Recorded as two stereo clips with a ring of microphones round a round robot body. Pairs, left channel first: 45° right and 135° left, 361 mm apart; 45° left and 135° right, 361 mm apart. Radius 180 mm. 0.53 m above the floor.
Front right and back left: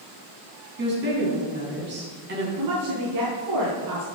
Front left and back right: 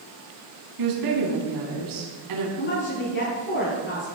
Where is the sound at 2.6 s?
100° left, 5.5 m.